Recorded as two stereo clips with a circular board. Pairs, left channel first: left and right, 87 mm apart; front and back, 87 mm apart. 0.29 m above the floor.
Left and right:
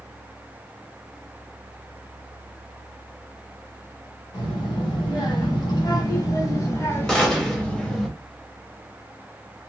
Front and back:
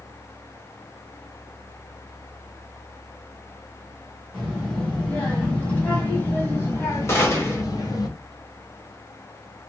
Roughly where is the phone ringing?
No phone ringing in this recording.